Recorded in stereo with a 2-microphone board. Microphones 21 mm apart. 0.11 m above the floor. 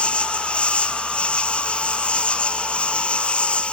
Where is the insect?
60° left (ahead or behind).